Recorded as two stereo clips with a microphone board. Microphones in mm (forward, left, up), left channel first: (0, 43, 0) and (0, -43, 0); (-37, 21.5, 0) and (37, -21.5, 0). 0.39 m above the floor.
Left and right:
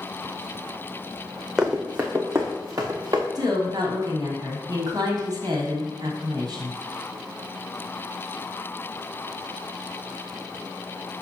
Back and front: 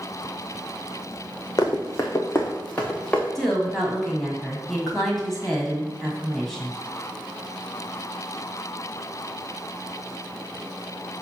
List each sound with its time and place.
1.6 s running footsteps: 170° right, 1.4 m; by 3.2 s 130° right, 2 m
3.4 s a woman speaking: 125° right, 2 m